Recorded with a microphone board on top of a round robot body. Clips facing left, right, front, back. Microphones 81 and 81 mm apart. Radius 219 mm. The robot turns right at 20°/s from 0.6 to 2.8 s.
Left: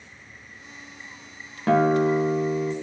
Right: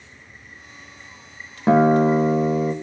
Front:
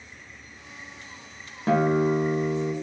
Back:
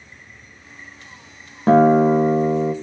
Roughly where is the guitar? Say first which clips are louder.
Right 4 dB, back 9 dB; behind right.